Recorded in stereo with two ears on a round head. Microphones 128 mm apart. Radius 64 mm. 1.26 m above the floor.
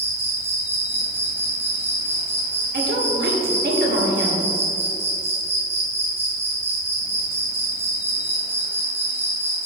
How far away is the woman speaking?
About 1.8 m.